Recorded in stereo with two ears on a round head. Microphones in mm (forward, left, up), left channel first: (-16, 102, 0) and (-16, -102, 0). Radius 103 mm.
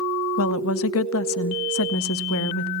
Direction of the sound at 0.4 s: 65° left (ahead or behind).